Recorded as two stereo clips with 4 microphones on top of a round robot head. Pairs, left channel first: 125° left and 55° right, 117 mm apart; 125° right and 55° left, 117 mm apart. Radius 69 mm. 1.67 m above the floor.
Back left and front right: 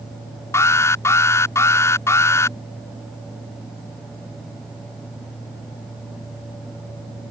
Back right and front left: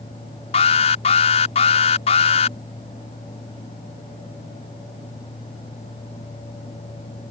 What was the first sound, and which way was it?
An alarm, 165° right.